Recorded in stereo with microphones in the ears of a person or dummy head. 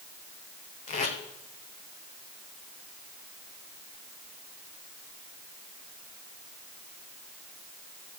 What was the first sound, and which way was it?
Tape being pulled, 40° left (ahead or behind).